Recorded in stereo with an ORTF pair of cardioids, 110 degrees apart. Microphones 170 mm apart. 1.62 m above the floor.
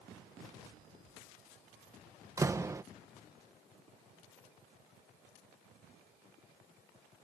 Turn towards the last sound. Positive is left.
turn(degrees=-20)